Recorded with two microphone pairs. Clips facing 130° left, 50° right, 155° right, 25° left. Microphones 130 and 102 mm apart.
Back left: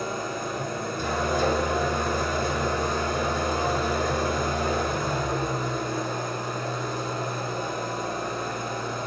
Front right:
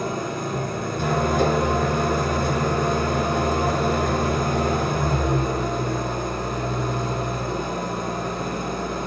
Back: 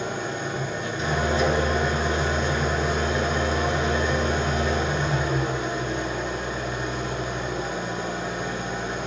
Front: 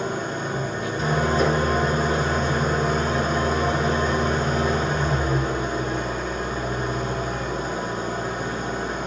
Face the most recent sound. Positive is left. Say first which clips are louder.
# front right 4 dB, front 2 dB
turn(degrees=-25)